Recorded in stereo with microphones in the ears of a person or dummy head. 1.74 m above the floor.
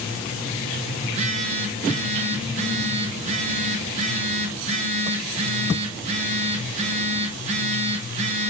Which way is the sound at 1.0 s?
40° right (ahead or behind).